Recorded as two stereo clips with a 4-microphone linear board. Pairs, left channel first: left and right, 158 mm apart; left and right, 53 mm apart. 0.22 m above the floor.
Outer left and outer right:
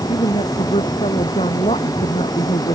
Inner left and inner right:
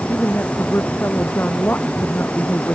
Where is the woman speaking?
40° left (ahead or behind).